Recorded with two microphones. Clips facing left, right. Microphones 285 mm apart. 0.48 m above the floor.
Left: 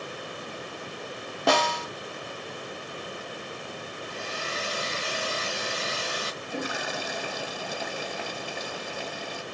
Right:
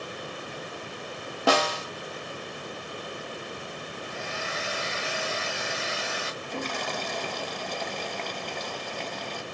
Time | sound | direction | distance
1.5 | a snare drum | centre (ahead or behind) | 0.7 m
4.0 | a hair dryer | 40° left (ahead or behind) | 0.9 m
6.4 | a toilet flushing | 10° left (ahead or behind) | 0.6 m